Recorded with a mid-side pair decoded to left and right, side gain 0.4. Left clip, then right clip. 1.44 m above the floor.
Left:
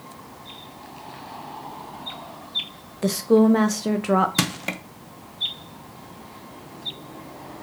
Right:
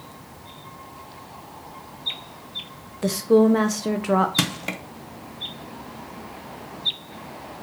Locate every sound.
3.0 s a woman speaking: 10° left, 0.5 m
4.4 s crushing: 15° left, 0.6 m